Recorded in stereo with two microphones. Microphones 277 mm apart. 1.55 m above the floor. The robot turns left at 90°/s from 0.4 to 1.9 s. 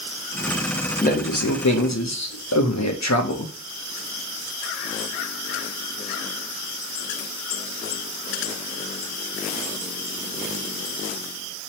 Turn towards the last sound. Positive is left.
turn(degrees=75)